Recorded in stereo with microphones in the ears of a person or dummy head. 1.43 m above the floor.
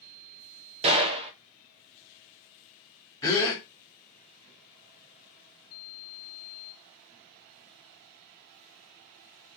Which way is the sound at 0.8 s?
35° right (ahead or behind).